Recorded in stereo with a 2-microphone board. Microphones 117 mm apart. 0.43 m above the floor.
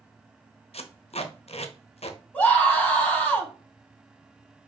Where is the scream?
15° left (ahead or behind), 2.5 m.